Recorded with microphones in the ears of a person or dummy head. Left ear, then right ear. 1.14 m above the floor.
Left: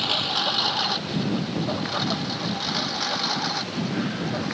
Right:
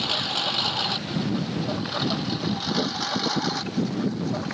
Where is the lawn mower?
Centre (ahead or behind); by 4.5 s 10° right (ahead or behind).